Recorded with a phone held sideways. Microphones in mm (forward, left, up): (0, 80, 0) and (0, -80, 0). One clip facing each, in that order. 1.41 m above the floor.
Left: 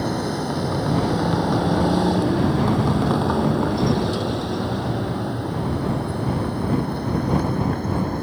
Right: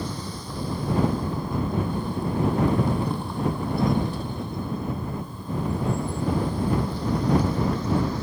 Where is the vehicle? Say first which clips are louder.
Left 10 dB; 65° left (ahead or behind); by 8.2 s 50° left (ahead or behind).